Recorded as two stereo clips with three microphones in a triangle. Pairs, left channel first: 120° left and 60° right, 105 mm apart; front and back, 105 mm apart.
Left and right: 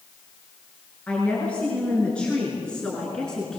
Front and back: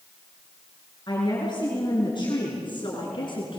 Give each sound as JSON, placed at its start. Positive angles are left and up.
{"t": 1.1, "sound": "a woman speaking", "azimuth_deg": 45, "distance_m": 7.0}